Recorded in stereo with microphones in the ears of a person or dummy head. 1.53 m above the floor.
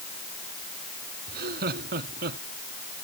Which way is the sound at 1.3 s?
60° right (ahead or behind).